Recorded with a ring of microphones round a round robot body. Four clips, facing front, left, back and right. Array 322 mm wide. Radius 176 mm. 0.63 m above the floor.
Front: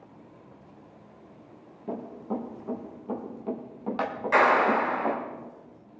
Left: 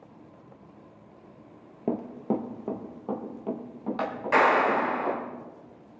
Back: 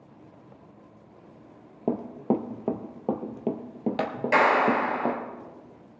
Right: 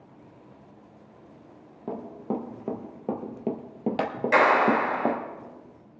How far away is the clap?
About 3.5 m.